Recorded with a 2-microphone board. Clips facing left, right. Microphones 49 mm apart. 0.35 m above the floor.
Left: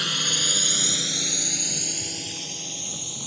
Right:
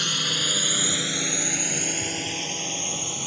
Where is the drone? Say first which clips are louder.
Even; 5° left (ahead or behind); by 3.3 s 50° right (ahead or behind).